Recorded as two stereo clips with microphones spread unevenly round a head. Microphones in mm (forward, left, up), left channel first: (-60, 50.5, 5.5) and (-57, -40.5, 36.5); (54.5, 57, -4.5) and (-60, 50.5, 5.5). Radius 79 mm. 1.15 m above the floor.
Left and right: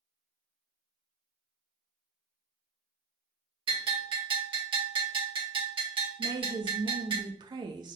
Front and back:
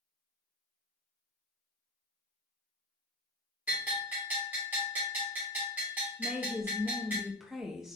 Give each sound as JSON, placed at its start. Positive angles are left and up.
{"t": 3.7, "sound": "a bell", "azimuth_deg": -100, "distance_m": 1.5}
{"t": 6.2, "sound": "a woman speaking", "azimuth_deg": -80, "distance_m": 0.5}